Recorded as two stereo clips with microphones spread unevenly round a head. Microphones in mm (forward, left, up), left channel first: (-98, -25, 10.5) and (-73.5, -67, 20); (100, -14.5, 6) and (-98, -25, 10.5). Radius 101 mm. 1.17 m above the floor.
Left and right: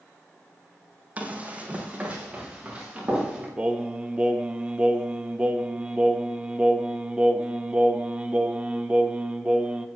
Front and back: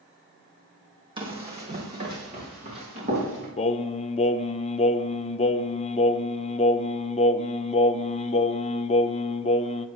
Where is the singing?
10° left, 0.5 m.